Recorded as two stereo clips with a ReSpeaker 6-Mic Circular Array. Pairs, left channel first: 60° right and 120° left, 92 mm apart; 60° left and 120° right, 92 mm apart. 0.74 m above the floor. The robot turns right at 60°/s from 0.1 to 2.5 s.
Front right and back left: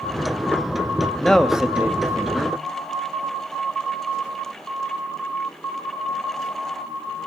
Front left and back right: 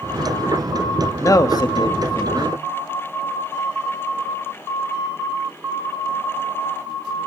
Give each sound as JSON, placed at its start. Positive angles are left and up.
{"t": 1.2, "sound": "a man speaking", "azimuth_deg": 15, "distance_m": 1.2}